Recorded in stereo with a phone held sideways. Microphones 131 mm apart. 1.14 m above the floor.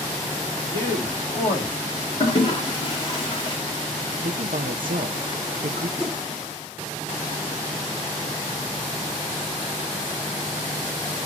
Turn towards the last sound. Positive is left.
turn(degrees=5)  # may be behind; listen again after turning